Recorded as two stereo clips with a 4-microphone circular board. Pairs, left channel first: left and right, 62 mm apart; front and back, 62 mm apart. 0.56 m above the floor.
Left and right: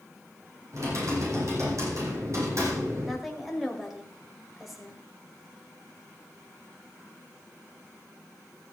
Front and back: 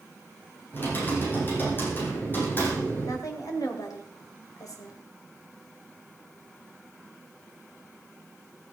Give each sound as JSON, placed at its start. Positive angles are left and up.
{"t": 0.7, "sound": "typing on a keyboard", "azimuth_deg": -55, "distance_m": 6.5}
{"t": 3.0, "sound": "a woman speaking", "azimuth_deg": 0, "distance_m": 2.5}